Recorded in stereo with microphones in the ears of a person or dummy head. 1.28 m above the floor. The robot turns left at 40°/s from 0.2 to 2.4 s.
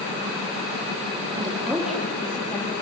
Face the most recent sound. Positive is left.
turn(degrees=160)